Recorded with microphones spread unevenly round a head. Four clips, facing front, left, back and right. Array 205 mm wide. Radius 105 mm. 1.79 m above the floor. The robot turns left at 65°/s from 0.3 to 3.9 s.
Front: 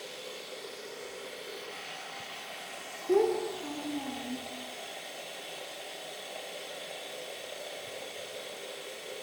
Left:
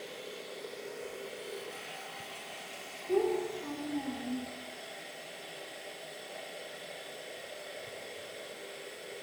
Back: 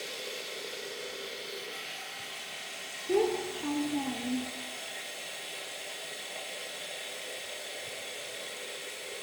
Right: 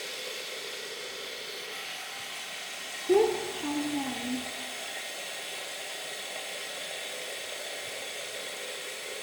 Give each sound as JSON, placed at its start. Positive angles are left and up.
{"t": 0.0, "sound": "running water", "azimuth_deg": 175, "distance_m": 0.9}
{"t": 3.1, "sound": "a child speaking", "azimuth_deg": -85, "distance_m": 0.7}